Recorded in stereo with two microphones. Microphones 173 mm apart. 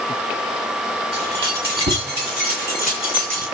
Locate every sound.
1.1 s keys jangling: 80° right, 8 m; by 3.5 s 60° right (ahead or behind), 6.5 m